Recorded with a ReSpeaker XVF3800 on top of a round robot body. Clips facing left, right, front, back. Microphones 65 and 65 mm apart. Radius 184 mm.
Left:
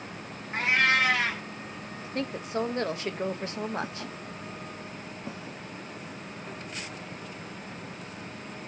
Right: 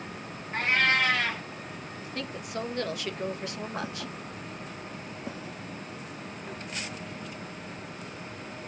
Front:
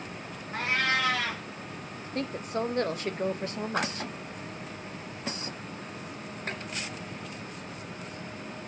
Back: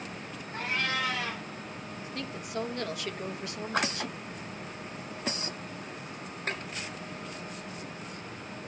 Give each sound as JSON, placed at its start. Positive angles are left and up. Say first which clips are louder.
{"t": 0.5, "sound": "a cat meowing", "louder": "left 1 dB, front 4 dB", "azimuth_deg": 10, "distance_m": 2.5}
{"t": 2.0, "sound": "a woman speaking", "louder": "left 5 dB, front 7 dB", "azimuth_deg": 40, "distance_m": 1.2}